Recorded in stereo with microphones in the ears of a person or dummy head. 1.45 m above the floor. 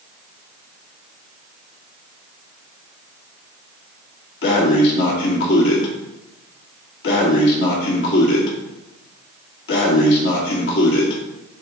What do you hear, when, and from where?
4.4 s breathing: 55° left (ahead or behind), 1.5 m